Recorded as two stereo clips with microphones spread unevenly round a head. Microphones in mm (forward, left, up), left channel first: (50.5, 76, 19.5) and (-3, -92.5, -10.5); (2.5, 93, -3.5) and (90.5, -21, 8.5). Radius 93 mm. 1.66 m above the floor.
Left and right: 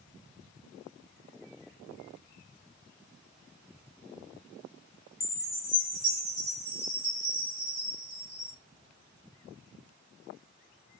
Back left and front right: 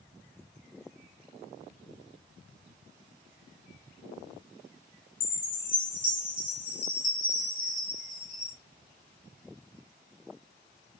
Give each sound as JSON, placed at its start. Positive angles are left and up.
{"t": 5.2, "sound": "a chime", "azimuth_deg": 135, "distance_m": 1.5}